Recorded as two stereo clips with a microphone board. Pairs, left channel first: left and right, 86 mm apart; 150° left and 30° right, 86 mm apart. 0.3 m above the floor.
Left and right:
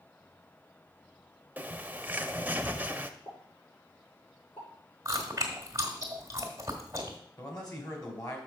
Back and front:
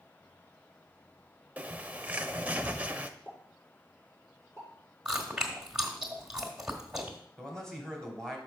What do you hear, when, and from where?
1.6 s a bird: 65° right, 0.5 m
3.2 s a pop: 95° left, 5.5 m
5.0 s chewing: 105° right, 1.6 m
7.4 s a man speaking: 70° left, 2 m